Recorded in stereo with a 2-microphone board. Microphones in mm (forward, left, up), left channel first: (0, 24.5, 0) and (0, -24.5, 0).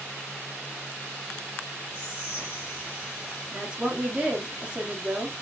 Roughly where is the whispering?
Right.